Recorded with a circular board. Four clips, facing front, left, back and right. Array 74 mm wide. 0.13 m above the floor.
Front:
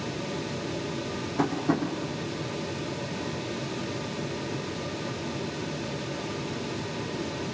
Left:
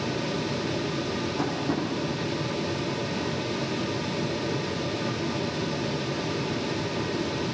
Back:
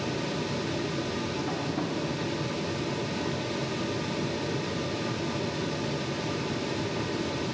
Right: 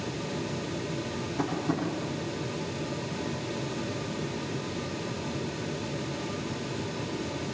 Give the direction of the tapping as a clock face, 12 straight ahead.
12 o'clock.